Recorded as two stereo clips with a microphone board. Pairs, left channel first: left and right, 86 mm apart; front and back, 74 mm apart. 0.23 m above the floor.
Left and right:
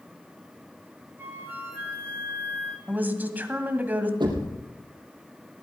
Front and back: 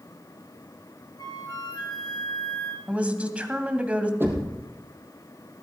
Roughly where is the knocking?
Behind right.